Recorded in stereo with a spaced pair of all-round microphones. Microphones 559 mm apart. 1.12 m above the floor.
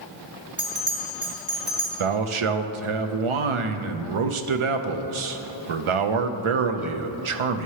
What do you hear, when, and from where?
0.6 s a bell: 35° right (ahead or behind), 1.3 m
2.0 s a man speaking: 60° right (ahead or behind), 0.5 m